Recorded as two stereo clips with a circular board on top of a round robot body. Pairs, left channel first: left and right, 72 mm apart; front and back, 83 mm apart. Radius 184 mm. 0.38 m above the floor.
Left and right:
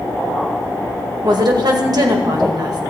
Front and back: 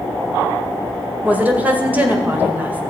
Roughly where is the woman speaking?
Right.